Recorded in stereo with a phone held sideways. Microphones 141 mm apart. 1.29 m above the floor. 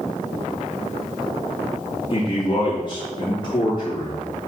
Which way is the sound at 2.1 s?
30° left (ahead or behind).